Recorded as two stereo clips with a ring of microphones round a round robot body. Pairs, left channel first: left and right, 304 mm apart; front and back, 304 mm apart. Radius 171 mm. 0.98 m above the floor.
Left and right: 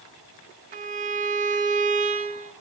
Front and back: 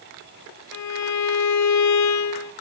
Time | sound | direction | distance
0.7 | a violin | 25° right | 0.7 m